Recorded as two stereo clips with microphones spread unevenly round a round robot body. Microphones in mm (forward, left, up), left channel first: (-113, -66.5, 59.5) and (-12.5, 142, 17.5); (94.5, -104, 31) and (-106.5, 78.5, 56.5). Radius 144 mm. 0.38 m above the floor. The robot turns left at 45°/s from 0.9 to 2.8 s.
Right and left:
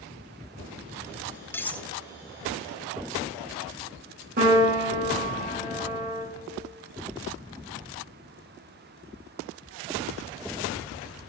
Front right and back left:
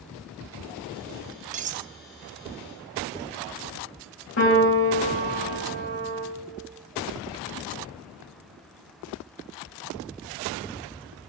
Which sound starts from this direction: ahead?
A piano, at 4.4 s.